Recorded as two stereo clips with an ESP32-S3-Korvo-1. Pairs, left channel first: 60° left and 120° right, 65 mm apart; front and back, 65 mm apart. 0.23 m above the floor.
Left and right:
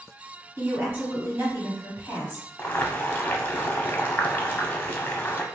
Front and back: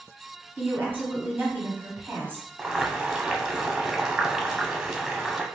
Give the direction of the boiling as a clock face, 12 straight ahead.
9 o'clock.